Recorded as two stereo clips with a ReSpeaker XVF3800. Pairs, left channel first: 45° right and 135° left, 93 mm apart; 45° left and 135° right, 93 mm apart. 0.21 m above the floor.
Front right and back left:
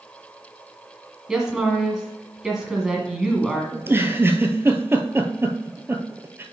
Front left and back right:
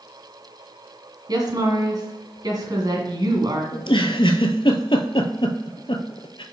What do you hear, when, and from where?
1.3 s a woman speaking: 145° right, 2.0 m
3.7 s a giggle: 70° left, 0.8 m